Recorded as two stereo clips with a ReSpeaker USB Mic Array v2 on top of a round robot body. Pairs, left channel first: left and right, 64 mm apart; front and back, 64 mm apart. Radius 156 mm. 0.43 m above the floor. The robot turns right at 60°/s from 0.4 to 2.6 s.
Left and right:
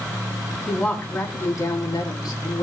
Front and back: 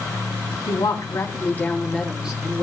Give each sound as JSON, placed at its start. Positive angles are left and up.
{"t": 0.7, "sound": "a woman speaking", "azimuth_deg": 5, "distance_m": 4.0}